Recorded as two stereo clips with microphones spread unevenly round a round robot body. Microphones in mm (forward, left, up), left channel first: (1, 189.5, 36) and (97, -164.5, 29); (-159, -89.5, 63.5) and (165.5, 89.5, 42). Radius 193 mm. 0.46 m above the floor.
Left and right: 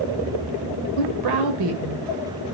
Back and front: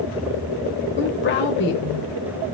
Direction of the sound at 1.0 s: 90° right.